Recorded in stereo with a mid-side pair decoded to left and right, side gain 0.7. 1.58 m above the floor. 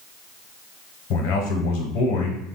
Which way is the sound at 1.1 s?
65° left.